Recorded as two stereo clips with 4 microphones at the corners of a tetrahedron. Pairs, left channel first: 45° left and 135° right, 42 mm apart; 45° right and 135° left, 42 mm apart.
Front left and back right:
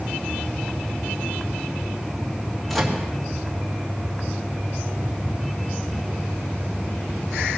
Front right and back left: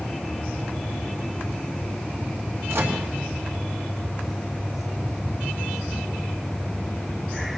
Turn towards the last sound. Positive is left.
turn(degrees=135)